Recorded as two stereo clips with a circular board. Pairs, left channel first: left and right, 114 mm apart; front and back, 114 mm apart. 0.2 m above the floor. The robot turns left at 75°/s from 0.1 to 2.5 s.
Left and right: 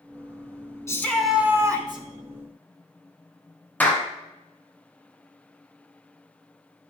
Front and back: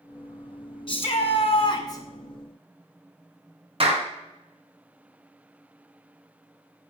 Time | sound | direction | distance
0.9 | a shout | 30° left | 1.9 m
3.8 | a clap | 165° left | 2 m